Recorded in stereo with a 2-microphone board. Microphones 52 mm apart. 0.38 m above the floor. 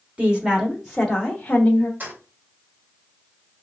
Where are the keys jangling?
35° right (ahead or behind), 1.4 m.